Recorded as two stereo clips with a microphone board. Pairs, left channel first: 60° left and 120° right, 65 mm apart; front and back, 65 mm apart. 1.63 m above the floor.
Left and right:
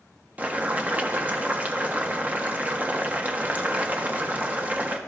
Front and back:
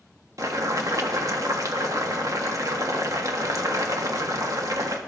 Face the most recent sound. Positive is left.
turn(degrees=180)